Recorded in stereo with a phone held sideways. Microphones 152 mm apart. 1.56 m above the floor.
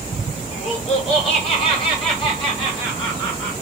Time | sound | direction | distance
0.5 | laughter | 50° left (ahead or behind) | 6 m